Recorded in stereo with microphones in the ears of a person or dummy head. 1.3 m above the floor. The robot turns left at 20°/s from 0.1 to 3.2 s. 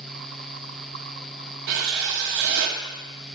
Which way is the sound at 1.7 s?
60° right (ahead or behind).